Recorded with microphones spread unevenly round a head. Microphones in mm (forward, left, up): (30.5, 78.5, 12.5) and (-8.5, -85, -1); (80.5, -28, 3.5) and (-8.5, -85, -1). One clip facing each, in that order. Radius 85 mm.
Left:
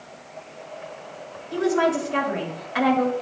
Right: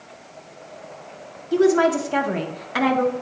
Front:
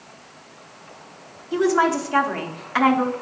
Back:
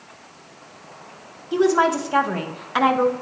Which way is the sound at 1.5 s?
80° right.